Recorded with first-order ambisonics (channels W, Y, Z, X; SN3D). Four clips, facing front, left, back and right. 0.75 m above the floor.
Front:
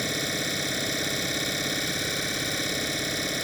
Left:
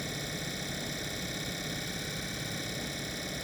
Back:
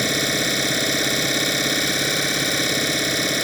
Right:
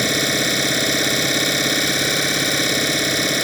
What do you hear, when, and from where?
0.0 s an engine running: 115° right